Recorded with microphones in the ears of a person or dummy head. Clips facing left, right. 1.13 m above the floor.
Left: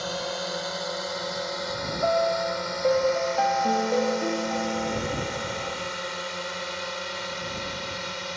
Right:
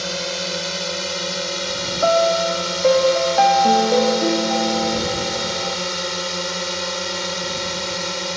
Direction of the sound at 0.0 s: 35° right (ahead or behind).